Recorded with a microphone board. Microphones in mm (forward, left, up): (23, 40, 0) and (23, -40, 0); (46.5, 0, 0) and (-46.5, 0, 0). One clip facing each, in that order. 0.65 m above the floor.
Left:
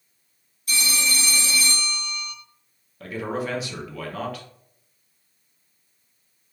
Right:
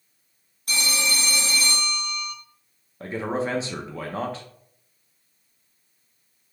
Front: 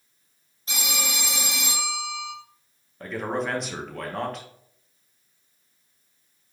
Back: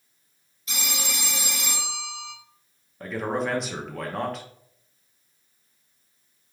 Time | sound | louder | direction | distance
0.7 | a phone ringing | even, front 2 dB | 55° right | 1.4 m
3.0 | a man speaking | right 2 dB, back 1 dB | 90° right | 0.6 m